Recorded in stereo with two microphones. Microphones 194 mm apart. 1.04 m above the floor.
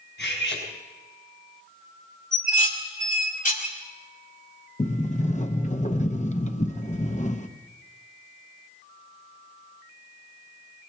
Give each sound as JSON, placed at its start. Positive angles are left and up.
{"t": 0.2, "sound": "cutlery clinking", "side_deg": 75, "distance_m": 4.0}
{"t": 2.3, "sound": "dishes clattering", "side_deg": 45, "distance_m": 2.0}
{"t": 4.8, "sound": "a sliding door", "side_deg": 40, "distance_m": 0.8}